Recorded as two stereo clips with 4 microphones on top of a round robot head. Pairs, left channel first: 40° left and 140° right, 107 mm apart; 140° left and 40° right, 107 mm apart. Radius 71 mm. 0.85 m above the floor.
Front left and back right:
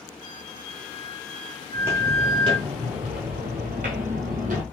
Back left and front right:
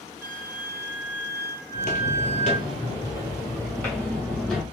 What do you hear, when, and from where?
0.2 s a flute: 30° left, 0.9 m
1.7 s footsteps: 150° left, 1.3 m; by 4.6 s 135° right, 1.9 m